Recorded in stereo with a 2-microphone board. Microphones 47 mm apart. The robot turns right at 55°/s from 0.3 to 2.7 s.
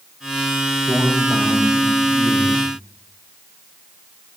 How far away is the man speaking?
About 4.5 m.